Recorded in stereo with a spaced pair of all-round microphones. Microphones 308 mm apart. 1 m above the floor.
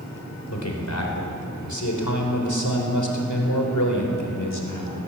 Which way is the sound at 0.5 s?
60° left (ahead or behind).